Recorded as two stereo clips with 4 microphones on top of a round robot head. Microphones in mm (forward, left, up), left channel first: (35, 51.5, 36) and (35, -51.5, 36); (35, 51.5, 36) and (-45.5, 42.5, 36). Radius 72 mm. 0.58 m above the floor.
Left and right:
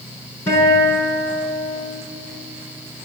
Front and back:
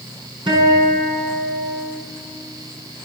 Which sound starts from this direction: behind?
A guitar, at 0.5 s.